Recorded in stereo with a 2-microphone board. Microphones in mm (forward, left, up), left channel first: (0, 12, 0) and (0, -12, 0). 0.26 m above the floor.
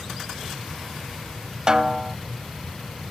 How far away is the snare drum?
About 0.7 m.